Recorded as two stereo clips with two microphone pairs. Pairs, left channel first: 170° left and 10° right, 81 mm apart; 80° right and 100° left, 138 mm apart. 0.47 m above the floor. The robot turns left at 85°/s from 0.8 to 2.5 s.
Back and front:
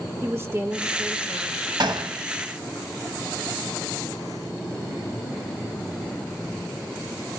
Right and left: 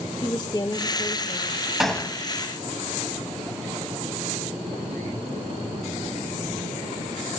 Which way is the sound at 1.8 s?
15° left.